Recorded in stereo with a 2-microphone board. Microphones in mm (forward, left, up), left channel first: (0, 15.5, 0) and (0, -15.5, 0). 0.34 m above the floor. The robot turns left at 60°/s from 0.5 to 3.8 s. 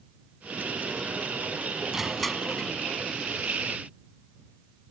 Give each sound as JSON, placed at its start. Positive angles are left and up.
{"t": 1.9, "sound": "crushing", "azimuth_deg": -170}